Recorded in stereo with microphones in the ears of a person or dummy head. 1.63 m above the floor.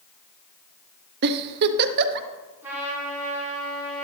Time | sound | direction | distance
1.2 | a giggle | 55° right (ahead or behind) | 0.7 m
2.6 | a trumpet | 15° right (ahead or behind) | 5 m